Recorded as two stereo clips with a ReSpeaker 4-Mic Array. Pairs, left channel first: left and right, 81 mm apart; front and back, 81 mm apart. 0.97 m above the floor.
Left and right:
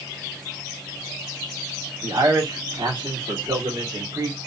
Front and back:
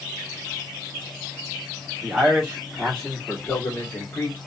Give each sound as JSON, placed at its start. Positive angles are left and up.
{"t": 2.0, "sound": "a man speaking", "azimuth_deg": -105, "distance_m": 2.0}